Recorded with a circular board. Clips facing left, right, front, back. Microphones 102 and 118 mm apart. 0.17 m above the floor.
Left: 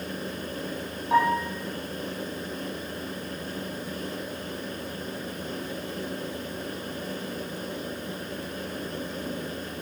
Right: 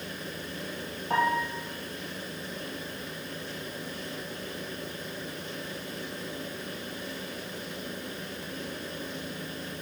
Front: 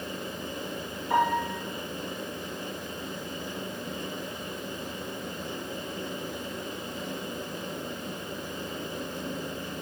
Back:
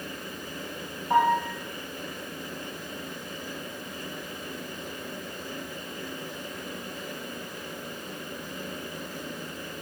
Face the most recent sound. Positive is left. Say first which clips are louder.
# left 4 dB, back 3 dB
turn(degrees=-115)